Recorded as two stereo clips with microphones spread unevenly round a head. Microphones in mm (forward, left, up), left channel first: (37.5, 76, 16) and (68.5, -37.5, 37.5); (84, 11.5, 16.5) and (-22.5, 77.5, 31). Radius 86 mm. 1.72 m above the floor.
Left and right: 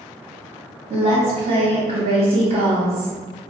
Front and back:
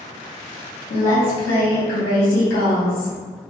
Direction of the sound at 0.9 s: 50° right.